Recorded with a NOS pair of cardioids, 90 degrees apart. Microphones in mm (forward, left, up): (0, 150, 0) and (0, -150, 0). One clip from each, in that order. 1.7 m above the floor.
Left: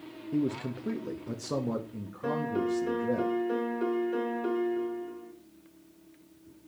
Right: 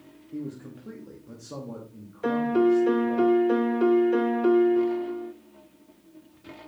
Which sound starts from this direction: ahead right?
A piano, at 2.2 s.